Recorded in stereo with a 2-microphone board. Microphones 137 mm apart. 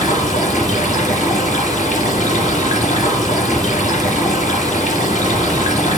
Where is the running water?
65° left (ahead or behind), 3 m.